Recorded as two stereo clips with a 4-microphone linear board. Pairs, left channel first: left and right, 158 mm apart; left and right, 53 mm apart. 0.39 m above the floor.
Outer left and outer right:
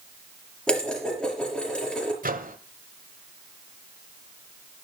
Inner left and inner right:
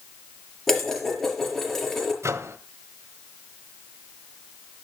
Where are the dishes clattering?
5° left (ahead or behind), 5 m.